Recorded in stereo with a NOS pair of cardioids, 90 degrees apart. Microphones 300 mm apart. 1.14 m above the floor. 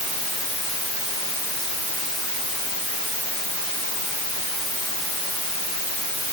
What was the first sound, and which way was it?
Only background noise.